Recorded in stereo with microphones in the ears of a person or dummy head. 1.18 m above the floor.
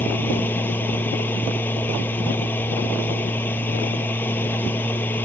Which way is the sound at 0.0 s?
15° left (ahead or behind).